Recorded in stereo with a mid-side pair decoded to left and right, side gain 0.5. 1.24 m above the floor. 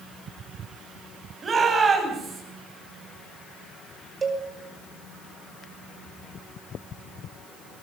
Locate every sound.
1.4 s a shout: 30° right, 9.5 m
4.2 s a cowbell: 35° right, 5.5 m